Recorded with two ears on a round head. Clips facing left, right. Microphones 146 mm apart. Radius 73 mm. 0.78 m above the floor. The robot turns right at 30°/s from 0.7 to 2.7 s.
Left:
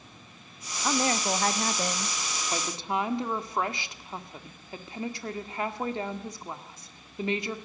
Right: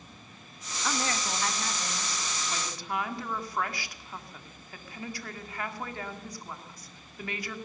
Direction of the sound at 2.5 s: 25° left (ahead or behind).